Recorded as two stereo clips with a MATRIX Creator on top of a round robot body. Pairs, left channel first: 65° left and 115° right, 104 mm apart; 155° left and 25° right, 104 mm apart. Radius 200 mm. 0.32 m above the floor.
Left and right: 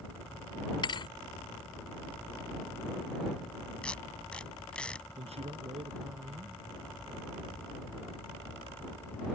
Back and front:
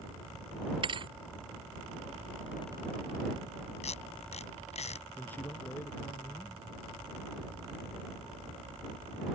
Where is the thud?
20° left.